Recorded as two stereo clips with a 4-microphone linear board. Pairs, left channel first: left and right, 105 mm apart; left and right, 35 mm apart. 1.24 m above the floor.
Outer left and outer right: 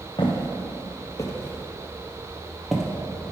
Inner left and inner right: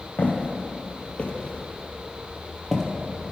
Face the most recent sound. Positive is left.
turn(degrees=0)  # may be behind; listen again after turning